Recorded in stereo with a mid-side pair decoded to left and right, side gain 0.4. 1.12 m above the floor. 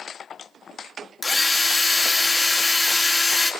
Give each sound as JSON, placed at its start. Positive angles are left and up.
{"t": 1.2, "sound": "a drill", "azimuth_deg": 25, "distance_m": 3.0}